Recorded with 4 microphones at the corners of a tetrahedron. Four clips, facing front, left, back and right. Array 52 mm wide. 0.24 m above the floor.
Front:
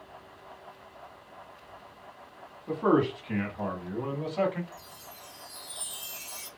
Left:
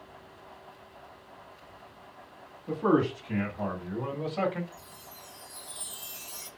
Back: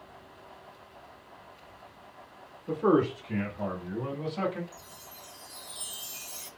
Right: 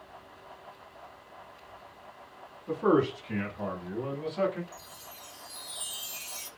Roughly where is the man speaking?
Ahead.